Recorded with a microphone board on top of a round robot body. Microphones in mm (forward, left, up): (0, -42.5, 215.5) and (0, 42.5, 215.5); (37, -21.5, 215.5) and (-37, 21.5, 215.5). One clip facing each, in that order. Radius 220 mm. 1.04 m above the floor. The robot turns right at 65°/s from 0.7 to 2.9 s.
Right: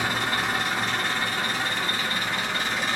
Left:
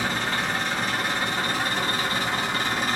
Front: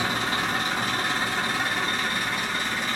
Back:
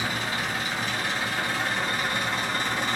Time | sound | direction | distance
0.0 | an engine running | 10° right | 1.4 m